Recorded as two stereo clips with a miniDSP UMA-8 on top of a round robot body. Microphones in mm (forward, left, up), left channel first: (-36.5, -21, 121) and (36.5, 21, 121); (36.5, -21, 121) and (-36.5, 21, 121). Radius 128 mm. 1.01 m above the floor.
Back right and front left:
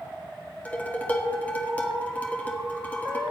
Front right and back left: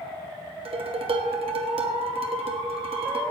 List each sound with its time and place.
0.7 s dishes clattering: 135° left, 1.2 m